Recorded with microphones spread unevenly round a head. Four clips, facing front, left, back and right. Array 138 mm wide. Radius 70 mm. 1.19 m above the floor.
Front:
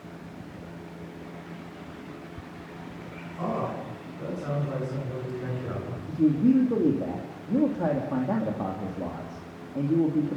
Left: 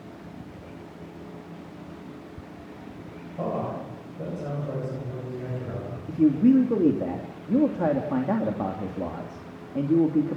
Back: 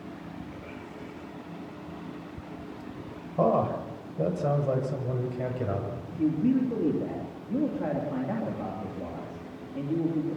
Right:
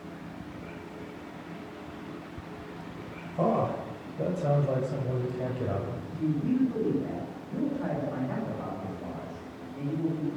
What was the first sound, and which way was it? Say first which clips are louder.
A man speaking: right 3 dB, back 6 dB; 170° right.